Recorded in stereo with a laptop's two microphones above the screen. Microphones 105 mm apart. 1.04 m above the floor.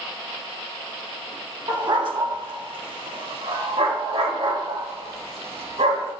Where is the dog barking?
40° right (ahead or behind), 1.2 m; by 6.1 s 80° right, 3.5 m.